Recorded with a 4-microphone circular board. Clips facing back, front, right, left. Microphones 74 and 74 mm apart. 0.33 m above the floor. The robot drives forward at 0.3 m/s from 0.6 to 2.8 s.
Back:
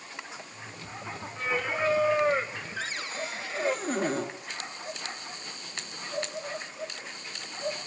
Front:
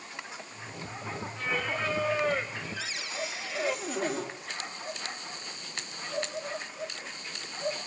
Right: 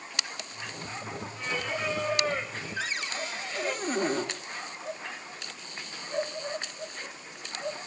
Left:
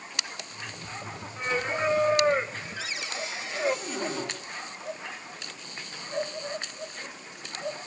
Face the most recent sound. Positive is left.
turn(degrees=-135)